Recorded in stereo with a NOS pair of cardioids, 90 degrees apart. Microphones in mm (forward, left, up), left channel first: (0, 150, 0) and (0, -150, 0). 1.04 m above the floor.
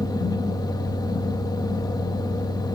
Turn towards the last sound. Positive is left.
turn(degrees=15)